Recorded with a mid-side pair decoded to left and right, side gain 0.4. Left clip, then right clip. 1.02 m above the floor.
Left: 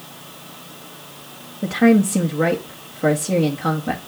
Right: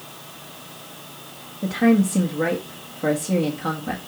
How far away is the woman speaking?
About 1.6 m.